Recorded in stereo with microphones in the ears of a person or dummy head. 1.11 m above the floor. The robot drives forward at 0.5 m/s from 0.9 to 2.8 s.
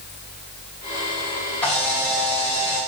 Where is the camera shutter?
10° left (ahead or behind), 1.8 m; by 2.8 s 5° left (ahead or behind), 2.5 m.